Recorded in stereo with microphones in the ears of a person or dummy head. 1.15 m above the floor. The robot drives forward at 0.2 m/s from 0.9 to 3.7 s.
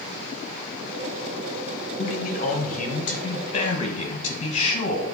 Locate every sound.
2.0 s a man speaking: 40° left (ahead or behind), 1.0 m; by 5.2 s 30° left (ahead or behind), 1.2 m